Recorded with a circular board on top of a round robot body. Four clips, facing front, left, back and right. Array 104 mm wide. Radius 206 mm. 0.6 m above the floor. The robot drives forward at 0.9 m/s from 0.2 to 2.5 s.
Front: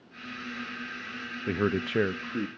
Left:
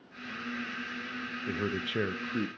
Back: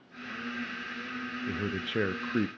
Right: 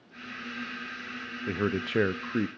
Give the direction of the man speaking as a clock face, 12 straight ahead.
1 o'clock.